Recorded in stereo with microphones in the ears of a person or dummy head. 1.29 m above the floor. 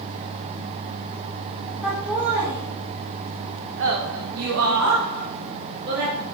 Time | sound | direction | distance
1.8 | laughter | centre (ahead or behind) | 1.9 m